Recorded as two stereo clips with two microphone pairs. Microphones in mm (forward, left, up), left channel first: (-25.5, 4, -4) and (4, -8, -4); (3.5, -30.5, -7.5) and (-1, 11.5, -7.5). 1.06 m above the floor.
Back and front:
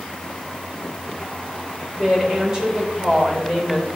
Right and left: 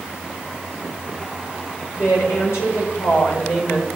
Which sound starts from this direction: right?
A woman speaking, at 2.0 s.